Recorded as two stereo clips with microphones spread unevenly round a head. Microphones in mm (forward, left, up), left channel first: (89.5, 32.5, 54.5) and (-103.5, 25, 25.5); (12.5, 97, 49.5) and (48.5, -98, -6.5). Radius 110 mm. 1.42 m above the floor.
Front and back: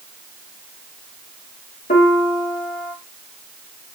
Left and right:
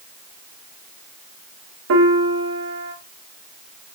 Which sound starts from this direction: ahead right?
A piano, at 1.9 s.